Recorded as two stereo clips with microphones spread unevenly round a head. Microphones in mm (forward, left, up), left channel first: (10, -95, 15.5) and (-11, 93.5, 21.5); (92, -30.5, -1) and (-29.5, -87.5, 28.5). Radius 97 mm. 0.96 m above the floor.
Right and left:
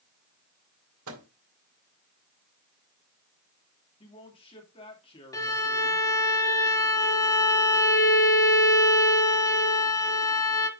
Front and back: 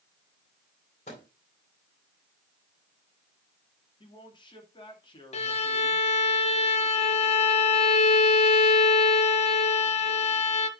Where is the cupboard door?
No cupboard door in this recording.